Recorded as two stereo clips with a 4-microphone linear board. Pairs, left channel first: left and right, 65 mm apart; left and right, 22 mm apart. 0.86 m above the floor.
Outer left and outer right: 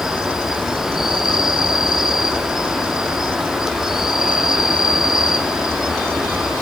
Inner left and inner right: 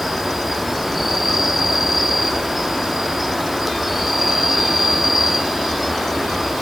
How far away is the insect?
About 0.8 m.